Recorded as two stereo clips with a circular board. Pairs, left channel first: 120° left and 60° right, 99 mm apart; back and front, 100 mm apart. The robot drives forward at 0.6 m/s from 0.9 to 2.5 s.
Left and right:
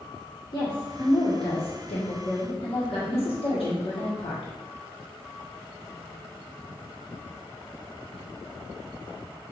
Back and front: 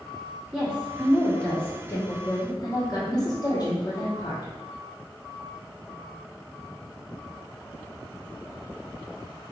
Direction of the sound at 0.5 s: 75° left.